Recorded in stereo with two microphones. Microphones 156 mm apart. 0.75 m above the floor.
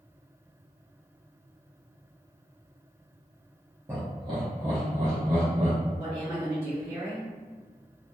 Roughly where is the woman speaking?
Right.